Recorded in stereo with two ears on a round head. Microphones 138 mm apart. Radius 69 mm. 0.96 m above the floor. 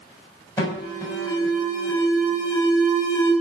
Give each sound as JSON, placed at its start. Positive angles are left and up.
{"t": 0.6, "sound": "an alarm", "side_deg": 25, "distance_m": 7.0}